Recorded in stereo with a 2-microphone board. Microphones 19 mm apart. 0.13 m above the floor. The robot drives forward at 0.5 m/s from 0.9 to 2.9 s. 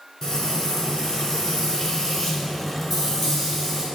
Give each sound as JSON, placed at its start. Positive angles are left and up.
{"t": 0.2, "sound": "frying", "side_deg": 25, "distance_m": 0.7}